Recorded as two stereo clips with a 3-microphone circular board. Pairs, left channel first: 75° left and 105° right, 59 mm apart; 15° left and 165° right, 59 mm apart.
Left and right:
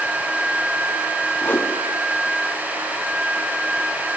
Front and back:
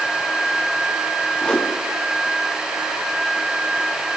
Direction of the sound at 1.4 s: 75° left.